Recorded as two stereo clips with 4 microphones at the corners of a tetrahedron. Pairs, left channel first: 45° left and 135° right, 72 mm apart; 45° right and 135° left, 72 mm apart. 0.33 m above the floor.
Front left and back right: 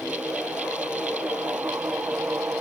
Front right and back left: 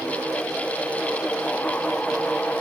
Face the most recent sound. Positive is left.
No sound to turn to.